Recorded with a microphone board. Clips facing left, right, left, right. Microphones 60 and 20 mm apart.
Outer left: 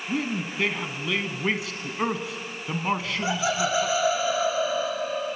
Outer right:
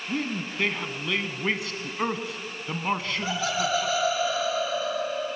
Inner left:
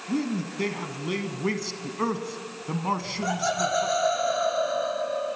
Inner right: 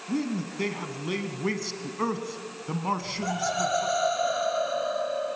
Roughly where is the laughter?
Centre.